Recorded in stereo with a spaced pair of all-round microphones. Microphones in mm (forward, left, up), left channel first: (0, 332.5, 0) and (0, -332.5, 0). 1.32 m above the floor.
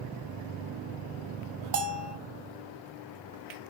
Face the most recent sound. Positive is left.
turn(degrees=-85)